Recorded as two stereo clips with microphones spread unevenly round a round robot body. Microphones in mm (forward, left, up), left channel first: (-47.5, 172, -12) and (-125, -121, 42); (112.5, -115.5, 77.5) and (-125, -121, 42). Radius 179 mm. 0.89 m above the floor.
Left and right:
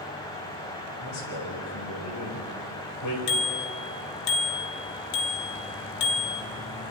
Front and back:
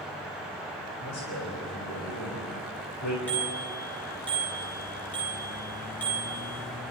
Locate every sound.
1.0 s a man speaking: 40° left, 5 m; by 3.2 s 30° left, 4 m
3.3 s a bicycle bell: 85° left, 2.5 m